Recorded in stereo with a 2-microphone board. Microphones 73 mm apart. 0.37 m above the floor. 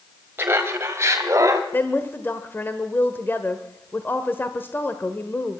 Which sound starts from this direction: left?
A woman speaking, at 1.7 s.